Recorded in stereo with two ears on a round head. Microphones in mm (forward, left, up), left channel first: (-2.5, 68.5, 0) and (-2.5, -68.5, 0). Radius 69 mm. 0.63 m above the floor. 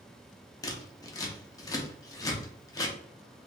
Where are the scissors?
25° left (ahead or behind), 0.6 m.